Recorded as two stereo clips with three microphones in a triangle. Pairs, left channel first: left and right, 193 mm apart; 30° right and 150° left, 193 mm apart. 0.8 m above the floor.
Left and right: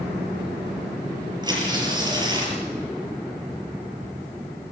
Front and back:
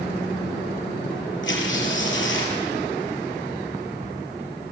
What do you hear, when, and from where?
1.4 s tearing paper: 20° right, 7 m